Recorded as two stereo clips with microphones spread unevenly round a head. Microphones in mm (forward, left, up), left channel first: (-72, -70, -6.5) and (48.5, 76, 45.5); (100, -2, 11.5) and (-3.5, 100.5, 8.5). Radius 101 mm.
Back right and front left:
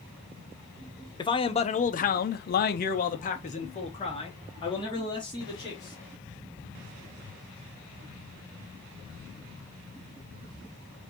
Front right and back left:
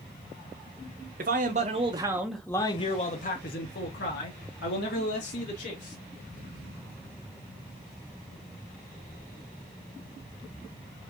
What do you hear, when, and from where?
1.2 s a man speaking: 170° left, 0.9 m; by 6.0 s 60° right, 2 m